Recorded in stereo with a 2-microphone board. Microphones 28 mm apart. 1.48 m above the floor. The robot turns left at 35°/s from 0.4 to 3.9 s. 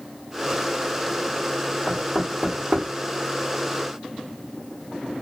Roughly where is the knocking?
Right.